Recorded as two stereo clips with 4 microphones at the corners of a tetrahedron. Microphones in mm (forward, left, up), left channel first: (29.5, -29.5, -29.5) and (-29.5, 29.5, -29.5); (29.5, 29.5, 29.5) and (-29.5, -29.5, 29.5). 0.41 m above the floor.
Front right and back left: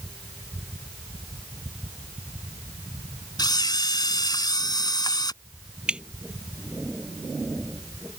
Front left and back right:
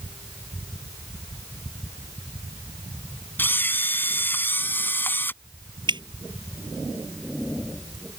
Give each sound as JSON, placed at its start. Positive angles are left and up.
{"t": 3.4, "sound": "a camera shutter", "azimuth_deg": -20}
{"t": 5.9, "sound": "dripping", "azimuth_deg": -145}